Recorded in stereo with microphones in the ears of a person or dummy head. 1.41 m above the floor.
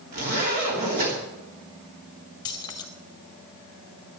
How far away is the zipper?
About 3 m.